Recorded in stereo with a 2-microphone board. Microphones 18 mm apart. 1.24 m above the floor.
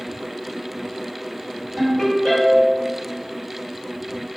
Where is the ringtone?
15° left (ahead or behind), 1.9 m.